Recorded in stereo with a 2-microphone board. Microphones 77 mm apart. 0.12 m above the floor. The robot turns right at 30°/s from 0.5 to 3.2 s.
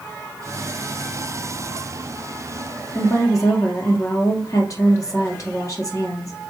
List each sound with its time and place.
3.0 s a woman speaking: 40° left (ahead or behind), 2.5 m; by 6.3 s 45° left (ahead or behind), 2.5 m